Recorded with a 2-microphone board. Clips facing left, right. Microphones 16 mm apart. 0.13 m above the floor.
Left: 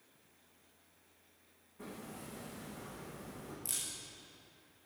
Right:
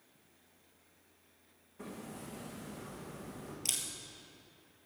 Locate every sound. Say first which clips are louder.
1.8 s hammering: right 2 dB; 20° right (ahead or behind), 4.5 m
3.6 s a camera shutter: right 6 dB; 65° right (ahead or behind), 1.9 m